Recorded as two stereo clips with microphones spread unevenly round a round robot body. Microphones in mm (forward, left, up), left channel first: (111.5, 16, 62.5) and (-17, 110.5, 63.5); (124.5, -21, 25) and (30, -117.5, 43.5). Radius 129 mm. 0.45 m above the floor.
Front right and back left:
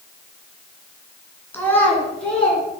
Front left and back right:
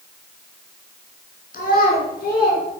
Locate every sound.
1.5 s a child speaking: 40° left, 3 m; by 2.6 s 50° left, 4.5 m